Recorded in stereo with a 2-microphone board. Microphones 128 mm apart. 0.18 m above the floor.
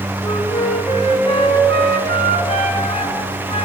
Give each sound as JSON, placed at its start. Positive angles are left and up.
{"t": 0.2, "sound": "a flute", "side_deg": 45, "distance_m": 1.5}